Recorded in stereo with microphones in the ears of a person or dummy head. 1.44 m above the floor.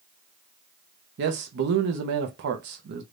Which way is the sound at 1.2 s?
60° right (ahead or behind).